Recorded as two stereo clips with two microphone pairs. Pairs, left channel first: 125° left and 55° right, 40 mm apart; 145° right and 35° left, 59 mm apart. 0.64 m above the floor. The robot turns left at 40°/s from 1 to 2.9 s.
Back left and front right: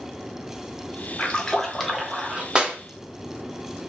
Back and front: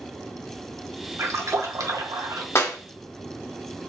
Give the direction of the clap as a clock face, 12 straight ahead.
4 o'clock.